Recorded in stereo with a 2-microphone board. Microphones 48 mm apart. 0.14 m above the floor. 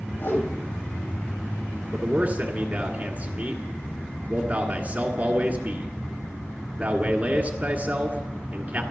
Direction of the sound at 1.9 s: 30° right (ahead or behind).